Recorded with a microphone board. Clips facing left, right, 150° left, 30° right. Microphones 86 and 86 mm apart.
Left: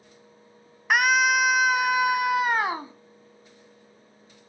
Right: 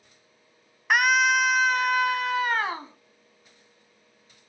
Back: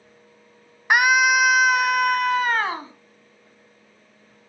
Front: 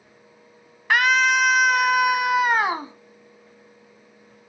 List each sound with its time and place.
0.9 s a scream: 175° left, 1.0 m; by 2.9 s 30° left, 1.2 m